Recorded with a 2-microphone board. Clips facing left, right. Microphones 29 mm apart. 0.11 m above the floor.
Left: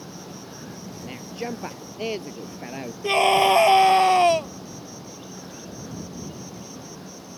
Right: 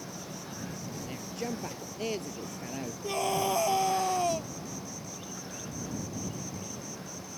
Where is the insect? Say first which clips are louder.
Left 3 dB; 35° left (ahead or behind).